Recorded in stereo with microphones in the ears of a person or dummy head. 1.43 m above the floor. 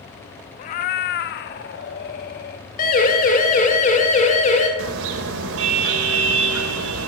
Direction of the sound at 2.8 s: 50° left (ahead or behind).